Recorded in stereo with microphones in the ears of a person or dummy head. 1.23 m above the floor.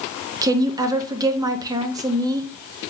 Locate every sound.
0.4 s a woman speaking: 20° right (ahead or behind), 0.9 m